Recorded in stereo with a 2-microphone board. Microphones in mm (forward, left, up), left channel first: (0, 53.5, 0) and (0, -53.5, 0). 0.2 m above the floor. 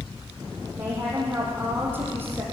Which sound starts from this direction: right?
A woman speaking, at 0.8 s.